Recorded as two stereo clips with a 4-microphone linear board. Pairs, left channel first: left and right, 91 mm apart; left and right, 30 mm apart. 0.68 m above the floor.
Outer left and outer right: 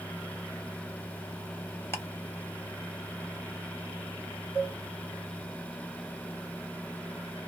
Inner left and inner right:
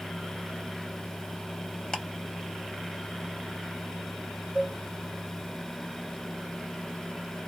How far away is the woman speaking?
No woman speaking in this recording.